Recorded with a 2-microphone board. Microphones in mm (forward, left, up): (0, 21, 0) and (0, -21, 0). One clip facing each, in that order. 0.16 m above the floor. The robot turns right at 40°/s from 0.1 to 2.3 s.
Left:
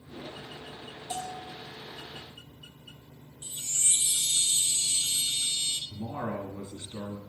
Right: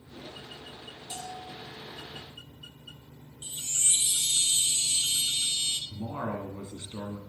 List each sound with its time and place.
1.1 s a bell: 25° left (ahead or behind), 2 m; by 1.6 s 10° left (ahead or behind), 2 m
3.4 s a chime: 40° right (ahead or behind), 0.8 m
5.9 s a man speaking: 20° right (ahead or behind), 1.5 m